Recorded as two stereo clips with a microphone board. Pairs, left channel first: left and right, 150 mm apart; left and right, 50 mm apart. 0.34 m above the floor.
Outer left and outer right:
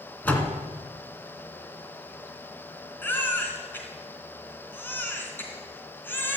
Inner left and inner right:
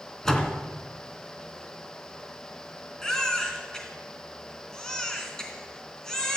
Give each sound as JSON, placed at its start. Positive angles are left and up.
{"t": 0.2, "sound": "a door slam", "side_deg": 10, "distance_m": 2.0}
{"t": 3.0, "sound": "a baby crying", "side_deg": 15, "distance_m": 3.0}